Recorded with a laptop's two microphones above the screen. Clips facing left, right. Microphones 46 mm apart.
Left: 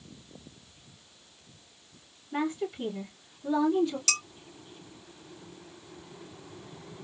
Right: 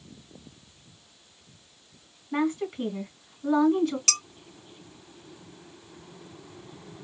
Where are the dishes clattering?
45° right (ahead or behind), 2.5 m.